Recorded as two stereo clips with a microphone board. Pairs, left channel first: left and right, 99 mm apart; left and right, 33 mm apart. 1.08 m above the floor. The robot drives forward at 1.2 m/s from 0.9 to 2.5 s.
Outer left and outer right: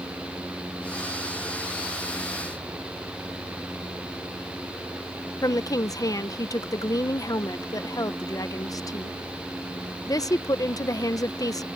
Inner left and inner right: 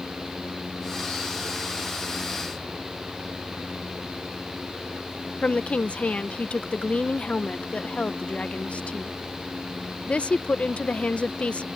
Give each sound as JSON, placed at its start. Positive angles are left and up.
{"t": 5.4, "sound": "a woman speaking", "side_deg": 35}